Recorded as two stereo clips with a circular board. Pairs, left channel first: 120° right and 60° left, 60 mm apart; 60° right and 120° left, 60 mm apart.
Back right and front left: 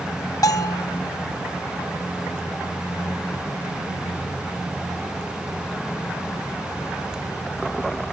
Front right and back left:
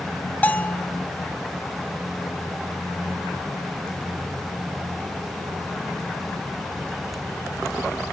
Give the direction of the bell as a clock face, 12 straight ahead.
4 o'clock.